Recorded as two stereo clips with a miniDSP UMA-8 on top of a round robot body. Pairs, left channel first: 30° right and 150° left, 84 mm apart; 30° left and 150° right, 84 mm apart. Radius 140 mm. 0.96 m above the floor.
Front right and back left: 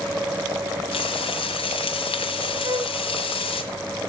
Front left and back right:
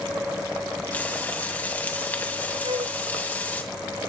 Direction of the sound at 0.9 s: 40° right.